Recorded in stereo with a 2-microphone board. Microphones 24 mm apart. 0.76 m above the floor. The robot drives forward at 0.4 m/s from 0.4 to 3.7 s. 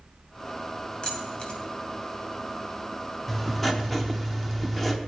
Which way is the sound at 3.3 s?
15° left (ahead or behind).